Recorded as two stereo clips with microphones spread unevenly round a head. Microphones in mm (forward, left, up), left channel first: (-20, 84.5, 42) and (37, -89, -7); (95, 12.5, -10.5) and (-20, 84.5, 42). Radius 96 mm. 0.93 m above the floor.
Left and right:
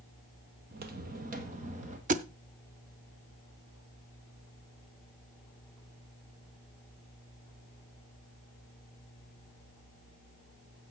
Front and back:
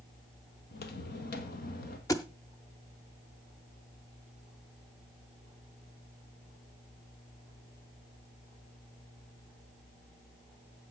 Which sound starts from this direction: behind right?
A thud, at 2.1 s.